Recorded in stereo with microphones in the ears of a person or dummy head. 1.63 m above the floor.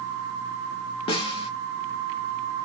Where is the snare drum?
35° left (ahead or behind), 0.7 m.